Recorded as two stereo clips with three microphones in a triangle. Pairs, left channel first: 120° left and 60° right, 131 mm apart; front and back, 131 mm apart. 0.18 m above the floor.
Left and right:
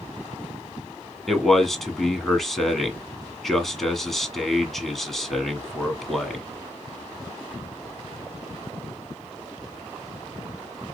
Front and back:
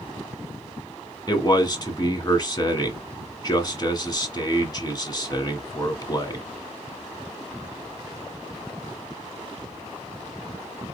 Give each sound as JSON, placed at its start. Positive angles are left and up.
{"t": 1.3, "sound": "a man speaking", "azimuth_deg": 35, "distance_m": 1.3}